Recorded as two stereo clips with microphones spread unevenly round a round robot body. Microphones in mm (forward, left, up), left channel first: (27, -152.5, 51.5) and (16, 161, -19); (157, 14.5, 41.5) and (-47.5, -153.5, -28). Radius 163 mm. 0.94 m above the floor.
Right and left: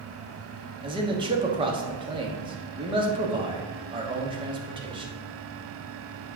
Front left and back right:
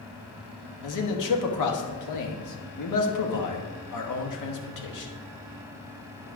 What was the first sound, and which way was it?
A man speaking, 20° left.